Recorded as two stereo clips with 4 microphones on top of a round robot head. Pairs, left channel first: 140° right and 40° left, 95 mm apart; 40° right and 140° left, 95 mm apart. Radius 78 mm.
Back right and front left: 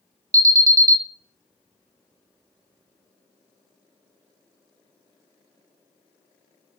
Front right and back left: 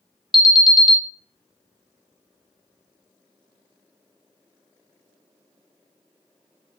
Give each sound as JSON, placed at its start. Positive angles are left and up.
{"t": 0.3, "sound": "an alarm", "azimuth_deg": 50, "distance_m": 0.6}